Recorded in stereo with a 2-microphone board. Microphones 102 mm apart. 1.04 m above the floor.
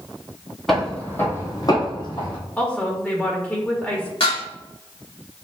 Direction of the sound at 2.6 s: 15° left (ahead or behind).